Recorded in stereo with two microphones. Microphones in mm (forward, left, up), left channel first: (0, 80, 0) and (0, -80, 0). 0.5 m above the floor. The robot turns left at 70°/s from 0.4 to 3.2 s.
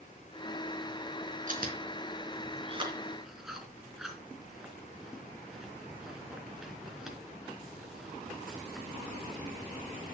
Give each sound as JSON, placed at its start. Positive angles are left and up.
{"t": 1.5, "sound": "chewing", "side_deg": -55, "distance_m": 3.0}